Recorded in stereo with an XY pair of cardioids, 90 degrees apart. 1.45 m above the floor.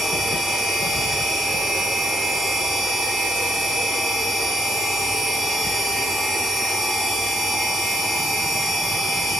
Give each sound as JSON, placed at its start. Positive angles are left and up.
{"t": 0.0, "sound": "a machine running", "azimuth_deg": -45, "distance_m": 1.5}